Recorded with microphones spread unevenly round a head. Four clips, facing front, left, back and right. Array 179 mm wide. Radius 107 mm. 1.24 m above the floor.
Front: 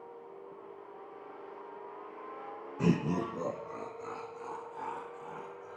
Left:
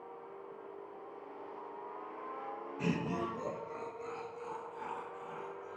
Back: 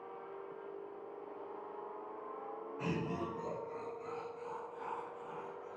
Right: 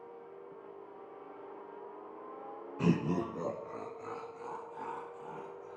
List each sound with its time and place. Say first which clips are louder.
2.8 s laughter: right 5 dB, front 9 dB; 40° right, 0.8 m; by 5.8 s 70° right, 4.5 m